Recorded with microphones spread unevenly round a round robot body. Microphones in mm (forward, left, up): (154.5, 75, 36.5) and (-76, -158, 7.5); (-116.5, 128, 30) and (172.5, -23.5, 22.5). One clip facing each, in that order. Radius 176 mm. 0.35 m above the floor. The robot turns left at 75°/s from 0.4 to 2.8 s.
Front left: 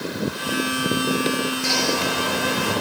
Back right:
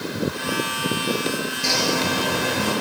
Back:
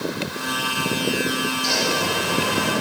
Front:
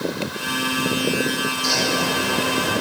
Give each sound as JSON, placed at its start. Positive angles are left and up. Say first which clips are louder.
{"t": 1.6, "sound": "a bird", "louder": "even, front 1 dB", "azimuth_deg": -95, "distance_m": 5.5}